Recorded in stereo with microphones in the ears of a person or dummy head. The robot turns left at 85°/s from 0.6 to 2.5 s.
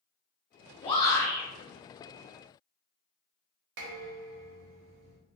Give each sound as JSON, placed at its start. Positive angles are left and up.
{"t": 0.8, "sound": "a shout", "azimuth_deg": 45, "distance_m": 0.9}
{"t": 3.8, "sound": "dishes clattering", "side_deg": -60, "distance_m": 0.8}